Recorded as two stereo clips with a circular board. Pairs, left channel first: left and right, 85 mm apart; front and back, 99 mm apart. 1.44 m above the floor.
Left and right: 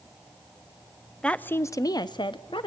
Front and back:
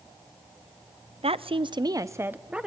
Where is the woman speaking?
170° left, 0.7 m; by 2.7 s 100° left, 1.0 m.